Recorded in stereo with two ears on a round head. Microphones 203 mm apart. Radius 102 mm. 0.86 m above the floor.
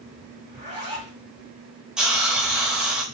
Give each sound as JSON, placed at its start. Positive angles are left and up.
{"t": 0.5, "sound": "a zipper", "side_deg": -30, "distance_m": 1.9}
{"t": 2.0, "sound": "a hiss", "side_deg": -5, "distance_m": 0.7}